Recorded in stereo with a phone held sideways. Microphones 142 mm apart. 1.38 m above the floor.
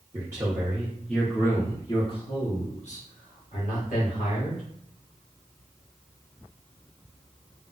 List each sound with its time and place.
0.1 s a man speaking: 25° right (ahead or behind), 1.0 m; by 4.6 s 80° left, 1.8 m